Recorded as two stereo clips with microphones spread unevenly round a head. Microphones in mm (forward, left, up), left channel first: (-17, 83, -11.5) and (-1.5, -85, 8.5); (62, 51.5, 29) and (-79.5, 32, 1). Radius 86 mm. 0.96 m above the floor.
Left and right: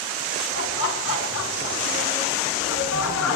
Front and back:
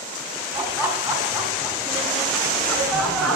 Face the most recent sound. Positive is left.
turn(degrees=95)